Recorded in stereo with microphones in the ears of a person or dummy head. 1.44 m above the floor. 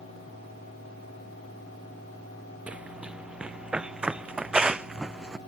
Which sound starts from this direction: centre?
Running footsteps, at 2.7 s.